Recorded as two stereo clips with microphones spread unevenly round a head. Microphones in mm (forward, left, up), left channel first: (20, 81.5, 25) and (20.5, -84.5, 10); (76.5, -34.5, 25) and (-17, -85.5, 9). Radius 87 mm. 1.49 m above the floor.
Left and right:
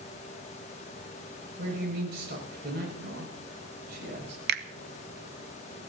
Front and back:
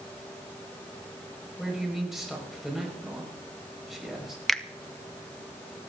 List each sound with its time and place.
1.6 s a man speaking: 65° right, 6.5 m
4.5 s a finger snap: 60° right, 0.9 m